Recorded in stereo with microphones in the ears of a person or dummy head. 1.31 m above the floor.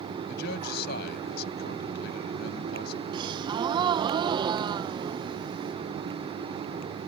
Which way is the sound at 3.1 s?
20° right (ahead or behind).